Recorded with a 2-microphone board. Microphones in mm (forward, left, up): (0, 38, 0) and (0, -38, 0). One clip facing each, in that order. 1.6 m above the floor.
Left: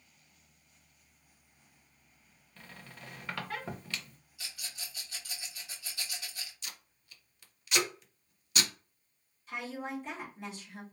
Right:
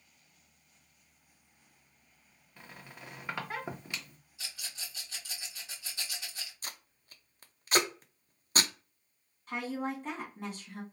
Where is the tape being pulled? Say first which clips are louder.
Right 3 dB; 40° right (ahead or behind), 0.5 m.